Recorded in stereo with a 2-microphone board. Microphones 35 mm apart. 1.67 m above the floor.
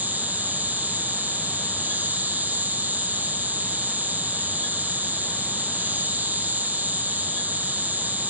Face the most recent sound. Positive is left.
turn(degrees=-45)  # may be behind; listen again after turning